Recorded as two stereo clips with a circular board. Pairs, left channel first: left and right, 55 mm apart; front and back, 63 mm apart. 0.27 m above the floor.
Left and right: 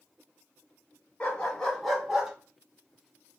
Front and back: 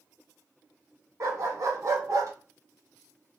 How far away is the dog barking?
About 1.1 m.